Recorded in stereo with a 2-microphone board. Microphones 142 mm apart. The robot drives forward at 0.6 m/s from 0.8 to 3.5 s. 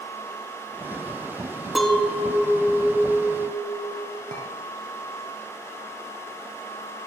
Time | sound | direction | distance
1.8 | a clink | centre (ahead or behind) | 0.7 m
4.3 | a clink | 65° right (ahead or behind) | 2.5 m